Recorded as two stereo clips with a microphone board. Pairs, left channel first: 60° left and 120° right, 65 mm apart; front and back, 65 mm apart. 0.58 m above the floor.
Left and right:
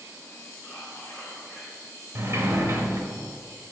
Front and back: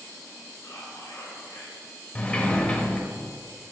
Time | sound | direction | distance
0.6 | whispering | 15° right | 1.8 m
2.1 | a sliding door | 70° right | 0.9 m